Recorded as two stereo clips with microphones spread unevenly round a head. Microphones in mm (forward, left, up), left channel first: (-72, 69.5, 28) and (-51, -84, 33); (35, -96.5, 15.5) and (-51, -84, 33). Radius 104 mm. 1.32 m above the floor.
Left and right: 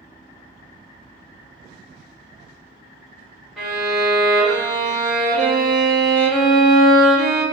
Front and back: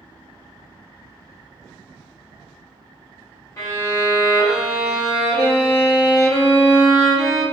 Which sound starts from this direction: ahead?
A violin, at 3.6 s.